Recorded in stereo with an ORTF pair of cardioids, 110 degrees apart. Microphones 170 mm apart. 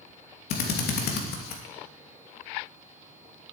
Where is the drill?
70° left, 2.5 m.